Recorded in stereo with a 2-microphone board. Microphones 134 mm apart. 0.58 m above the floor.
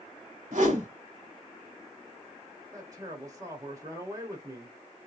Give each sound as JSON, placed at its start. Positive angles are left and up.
{"t": 0.5, "sound": "a whoosh", "side_deg": -70, "distance_m": 1.5}
{"t": 2.7, "sound": "a man speaking", "side_deg": -25, "distance_m": 1.1}